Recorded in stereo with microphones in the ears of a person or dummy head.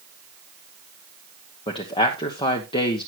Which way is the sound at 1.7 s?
30° left (ahead or behind).